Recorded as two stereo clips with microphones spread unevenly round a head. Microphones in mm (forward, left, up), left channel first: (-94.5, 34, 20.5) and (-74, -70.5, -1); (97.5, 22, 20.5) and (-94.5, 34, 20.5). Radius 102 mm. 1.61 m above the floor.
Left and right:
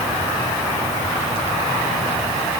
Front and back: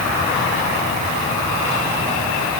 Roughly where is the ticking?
I don't hear ticking.